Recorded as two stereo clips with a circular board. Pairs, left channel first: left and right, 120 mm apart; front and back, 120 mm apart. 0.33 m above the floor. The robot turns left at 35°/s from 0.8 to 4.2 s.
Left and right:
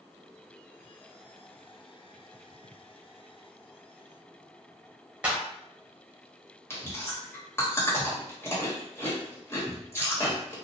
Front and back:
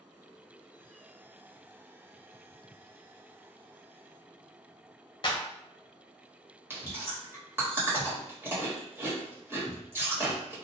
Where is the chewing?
135° left, 1.1 m.